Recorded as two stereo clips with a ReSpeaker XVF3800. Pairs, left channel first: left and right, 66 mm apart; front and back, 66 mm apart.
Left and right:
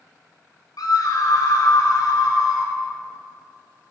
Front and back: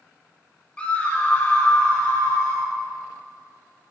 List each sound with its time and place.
0.8 s a scream: 70° left, 1.6 m; by 2.7 s 65° left, 4 m